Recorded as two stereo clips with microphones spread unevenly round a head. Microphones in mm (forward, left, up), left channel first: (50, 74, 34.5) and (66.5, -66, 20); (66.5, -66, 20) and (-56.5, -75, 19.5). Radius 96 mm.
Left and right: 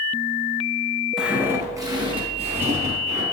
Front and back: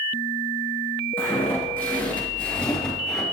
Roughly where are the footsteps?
Ahead.